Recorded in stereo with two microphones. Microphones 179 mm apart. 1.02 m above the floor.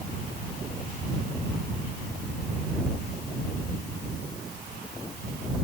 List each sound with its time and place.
Only background noise.